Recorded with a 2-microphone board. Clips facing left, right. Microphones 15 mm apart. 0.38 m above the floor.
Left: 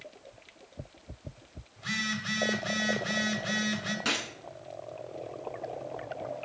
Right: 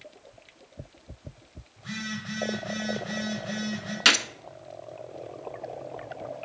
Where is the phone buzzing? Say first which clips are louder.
Left 3 dB; 30° left (ahead or behind), 1.5 m.